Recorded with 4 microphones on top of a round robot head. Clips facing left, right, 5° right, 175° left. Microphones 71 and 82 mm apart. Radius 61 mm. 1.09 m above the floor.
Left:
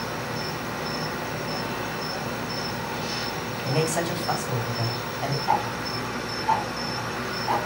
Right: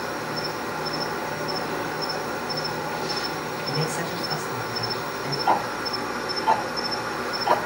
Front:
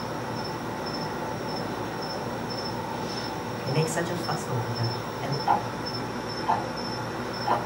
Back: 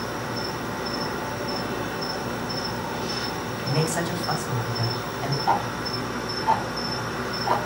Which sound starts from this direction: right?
Ticking, at 5.5 s.